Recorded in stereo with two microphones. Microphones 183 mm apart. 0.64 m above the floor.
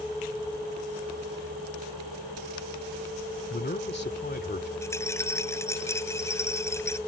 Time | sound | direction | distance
3.5 | a man speaking | 65° left (ahead or behind) | ?
4.8 | a rattle | 15° left (ahead or behind) | ?